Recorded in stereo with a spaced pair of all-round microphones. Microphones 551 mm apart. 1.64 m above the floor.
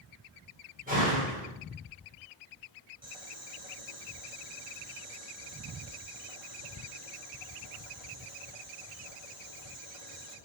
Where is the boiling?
75° right (ahead or behind), 3 m.